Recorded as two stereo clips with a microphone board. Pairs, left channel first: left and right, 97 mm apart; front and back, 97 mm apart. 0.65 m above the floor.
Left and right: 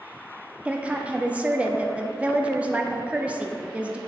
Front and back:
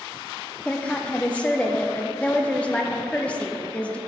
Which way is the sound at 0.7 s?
50° right.